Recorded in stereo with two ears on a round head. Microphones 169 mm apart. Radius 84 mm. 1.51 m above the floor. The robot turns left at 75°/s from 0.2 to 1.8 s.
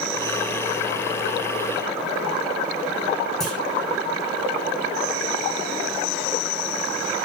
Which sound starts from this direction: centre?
A clunk, at 3.4 s.